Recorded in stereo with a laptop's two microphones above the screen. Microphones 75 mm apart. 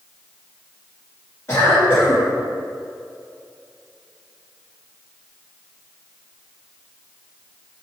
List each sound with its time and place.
1.5 s a cough: 35° left (ahead or behind), 2.5 m